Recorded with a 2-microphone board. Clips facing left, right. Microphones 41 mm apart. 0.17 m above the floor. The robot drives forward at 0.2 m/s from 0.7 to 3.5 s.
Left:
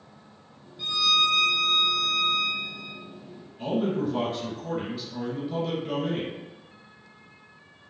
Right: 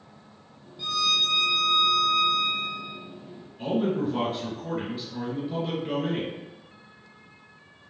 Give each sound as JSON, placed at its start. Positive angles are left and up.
{"t": 0.8, "sound": "a violin", "side_deg": 15, "distance_m": 1.5}
{"t": 3.6, "sound": "a man speaking", "side_deg": -15, "distance_m": 1.5}